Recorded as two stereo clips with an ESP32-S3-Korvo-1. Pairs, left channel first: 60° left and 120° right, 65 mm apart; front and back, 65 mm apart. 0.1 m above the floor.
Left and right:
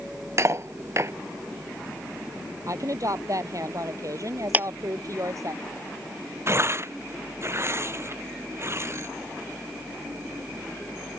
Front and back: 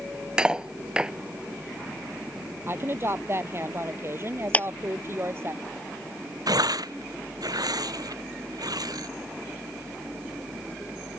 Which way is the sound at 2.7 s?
135° right.